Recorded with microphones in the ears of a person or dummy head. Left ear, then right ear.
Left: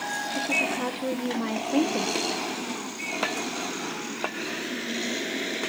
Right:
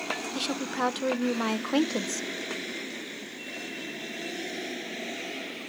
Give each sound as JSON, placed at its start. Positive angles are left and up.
{"t": 0.3, "sound": "a woman speaking", "side_deg": -45, "distance_m": 0.8}